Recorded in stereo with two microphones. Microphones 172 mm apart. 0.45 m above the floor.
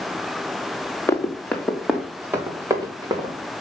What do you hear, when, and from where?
1.1 s running footsteps: 15° left (ahead or behind), 2.5 m; by 3.5 s 30° right (ahead or behind), 3 m